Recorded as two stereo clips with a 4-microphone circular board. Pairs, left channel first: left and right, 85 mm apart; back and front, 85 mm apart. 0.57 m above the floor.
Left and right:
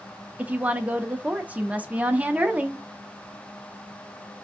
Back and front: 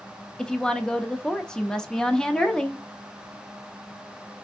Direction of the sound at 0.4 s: 115° right.